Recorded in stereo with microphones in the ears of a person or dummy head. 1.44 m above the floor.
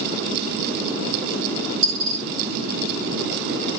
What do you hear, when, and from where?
1.8 s a dropped coin: 35° right (ahead or behind), 4 m